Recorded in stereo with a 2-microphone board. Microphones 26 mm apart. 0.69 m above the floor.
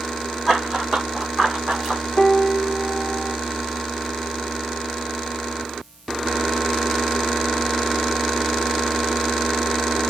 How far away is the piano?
About 0.6 m.